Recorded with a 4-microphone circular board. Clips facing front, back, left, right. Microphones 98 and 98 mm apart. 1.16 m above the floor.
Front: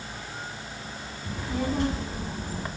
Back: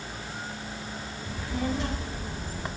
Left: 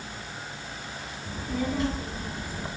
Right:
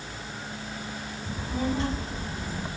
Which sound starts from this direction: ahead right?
A child speaking, at 1.2 s.